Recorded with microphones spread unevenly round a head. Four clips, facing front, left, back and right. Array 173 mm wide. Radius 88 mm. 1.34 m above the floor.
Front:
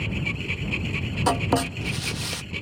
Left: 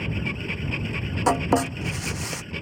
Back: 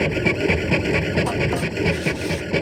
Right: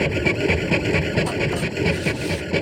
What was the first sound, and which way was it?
A machine running, 135° right.